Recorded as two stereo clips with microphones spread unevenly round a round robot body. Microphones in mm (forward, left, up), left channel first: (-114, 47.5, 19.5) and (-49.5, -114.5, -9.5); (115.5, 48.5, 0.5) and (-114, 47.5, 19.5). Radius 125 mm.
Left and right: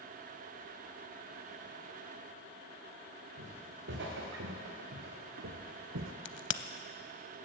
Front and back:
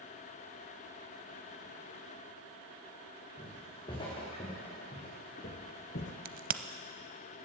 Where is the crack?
125° left, 0.7 m.